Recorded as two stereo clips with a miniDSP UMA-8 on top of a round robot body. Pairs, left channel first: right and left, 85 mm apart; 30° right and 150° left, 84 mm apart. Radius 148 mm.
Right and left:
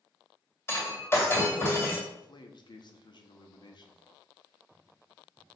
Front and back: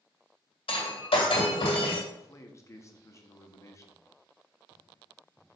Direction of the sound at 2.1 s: 80° right.